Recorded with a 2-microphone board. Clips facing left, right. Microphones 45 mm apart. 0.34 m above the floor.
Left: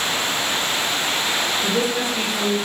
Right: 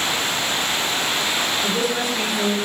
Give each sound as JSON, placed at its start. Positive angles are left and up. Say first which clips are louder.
{"t": 1.6, "sound": "a woman speaking", "louder": "left 1 dB", "side_deg": 30, "distance_m": 1.6}